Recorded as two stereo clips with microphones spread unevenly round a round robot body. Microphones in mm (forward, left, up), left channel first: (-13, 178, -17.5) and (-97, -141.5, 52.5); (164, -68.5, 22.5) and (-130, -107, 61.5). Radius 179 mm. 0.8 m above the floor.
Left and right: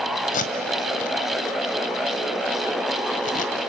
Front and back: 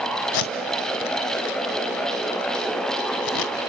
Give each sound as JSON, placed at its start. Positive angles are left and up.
{"t": 0.3, "sound": "tape being pulled", "azimuth_deg": 5, "distance_m": 1.5}